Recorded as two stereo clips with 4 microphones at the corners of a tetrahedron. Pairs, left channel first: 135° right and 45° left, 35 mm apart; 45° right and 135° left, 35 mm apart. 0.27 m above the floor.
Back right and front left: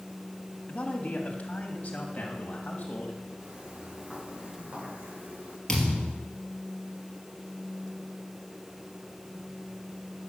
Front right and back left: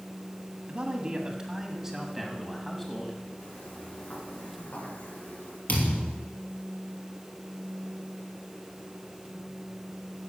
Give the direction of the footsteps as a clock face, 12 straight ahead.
1 o'clock.